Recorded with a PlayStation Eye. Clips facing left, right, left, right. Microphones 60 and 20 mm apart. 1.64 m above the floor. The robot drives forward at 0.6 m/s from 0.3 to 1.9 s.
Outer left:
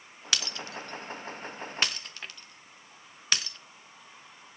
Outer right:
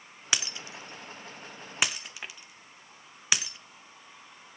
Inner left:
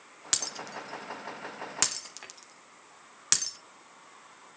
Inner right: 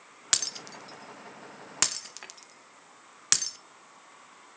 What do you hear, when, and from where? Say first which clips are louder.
0.3 s breaking glass: even, inner right 3 dB; 20° right (ahead or behind), 0.7 m; by 3.6 s 10° right (ahead or behind), 1.2 m